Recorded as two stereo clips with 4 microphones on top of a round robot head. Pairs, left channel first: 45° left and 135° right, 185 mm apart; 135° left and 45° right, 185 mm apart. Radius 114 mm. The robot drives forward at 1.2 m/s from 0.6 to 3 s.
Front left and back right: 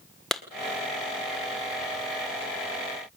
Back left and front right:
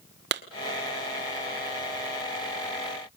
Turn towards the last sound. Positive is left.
turn(degrees=-150)